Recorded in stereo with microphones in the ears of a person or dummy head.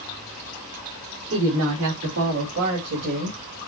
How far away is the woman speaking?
About 2.5 m.